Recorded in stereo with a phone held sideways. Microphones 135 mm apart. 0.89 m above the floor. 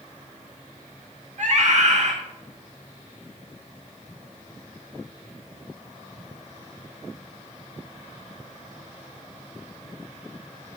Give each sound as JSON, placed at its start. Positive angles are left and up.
{"t": 1.4, "sound": "a scream", "side_deg": -60, "distance_m": 1.1}